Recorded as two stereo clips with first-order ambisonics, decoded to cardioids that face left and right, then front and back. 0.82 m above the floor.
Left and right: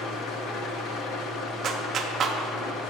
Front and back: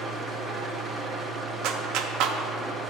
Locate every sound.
0.0 s an engine running: 110° left, 0.8 m
1.6 s a clap: 150° right, 0.6 m